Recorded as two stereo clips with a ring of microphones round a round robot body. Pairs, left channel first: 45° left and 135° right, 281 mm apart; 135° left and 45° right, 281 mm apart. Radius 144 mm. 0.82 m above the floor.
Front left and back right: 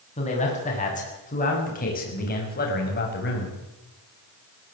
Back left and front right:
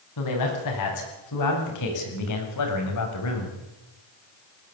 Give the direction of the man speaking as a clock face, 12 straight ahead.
8 o'clock.